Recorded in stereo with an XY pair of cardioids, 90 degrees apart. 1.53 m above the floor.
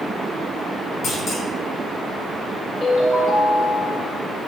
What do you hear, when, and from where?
1.0 s a clunk: 70° left, 1.3 m
2.8 s a ringtone: 30° left, 1.5 m